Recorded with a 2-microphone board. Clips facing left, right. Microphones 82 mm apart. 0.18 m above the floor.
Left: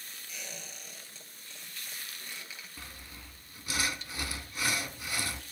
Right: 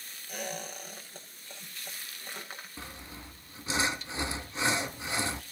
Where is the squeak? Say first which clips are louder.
Right 10 dB; 55° right (ahead or behind), 4 m.